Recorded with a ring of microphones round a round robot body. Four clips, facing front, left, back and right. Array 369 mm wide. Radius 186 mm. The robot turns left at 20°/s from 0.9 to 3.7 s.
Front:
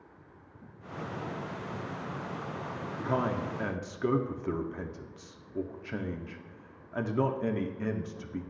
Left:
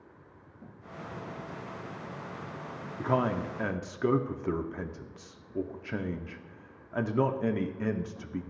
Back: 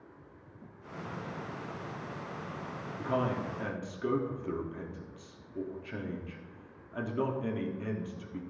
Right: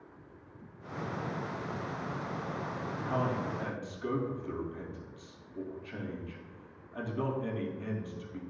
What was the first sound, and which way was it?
A man speaking, 85° left.